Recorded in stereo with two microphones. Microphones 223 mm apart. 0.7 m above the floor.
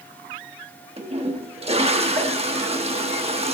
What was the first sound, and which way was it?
A toilet flushing, 25° right (ahead or behind).